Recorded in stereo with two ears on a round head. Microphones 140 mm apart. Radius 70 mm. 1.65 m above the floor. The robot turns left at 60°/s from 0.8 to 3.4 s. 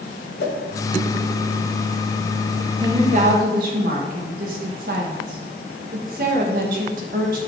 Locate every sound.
0.4 s a whoosh: 70° left (ahead or behind), 1.5 m
2.8 s a woman speaking: 30° right, 1.7 m; by 7.4 s 65° right, 1.7 m